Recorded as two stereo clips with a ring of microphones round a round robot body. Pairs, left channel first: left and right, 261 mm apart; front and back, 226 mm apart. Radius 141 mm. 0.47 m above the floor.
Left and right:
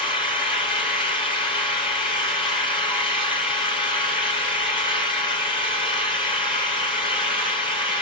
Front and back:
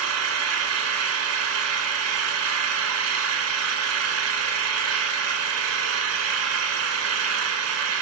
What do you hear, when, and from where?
0.0 s an engine running: 160° left, 1.5 m